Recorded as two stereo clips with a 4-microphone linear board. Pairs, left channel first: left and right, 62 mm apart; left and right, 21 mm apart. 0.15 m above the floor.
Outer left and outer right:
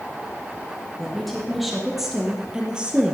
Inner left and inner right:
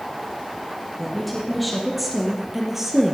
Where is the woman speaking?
Centre (ahead or behind), 4.5 m; by 3.1 s 20° right (ahead or behind), 3 m.